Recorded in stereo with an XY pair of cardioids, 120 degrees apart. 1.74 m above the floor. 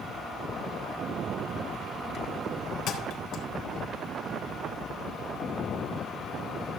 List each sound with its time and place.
2.9 s a thud: 70° left, 3.5 m